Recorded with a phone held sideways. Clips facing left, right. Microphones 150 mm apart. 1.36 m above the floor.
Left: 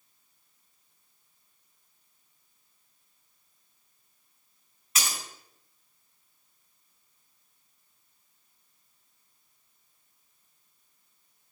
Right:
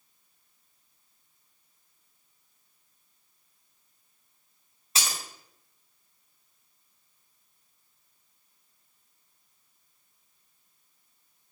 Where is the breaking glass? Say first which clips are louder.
Right 1 dB; 30° right (ahead or behind), 1.9 m.